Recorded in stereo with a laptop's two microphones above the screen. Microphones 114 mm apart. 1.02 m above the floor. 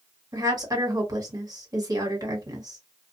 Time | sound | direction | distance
0.3 | a woman speaking | 35° right (ahead or behind) | 1.4 m